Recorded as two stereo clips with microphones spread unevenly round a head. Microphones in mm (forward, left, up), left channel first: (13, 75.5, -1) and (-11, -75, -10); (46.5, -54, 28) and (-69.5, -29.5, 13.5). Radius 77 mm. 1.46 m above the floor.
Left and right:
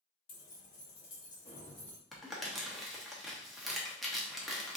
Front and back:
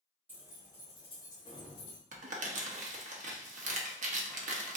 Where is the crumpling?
170° left, 0.7 m.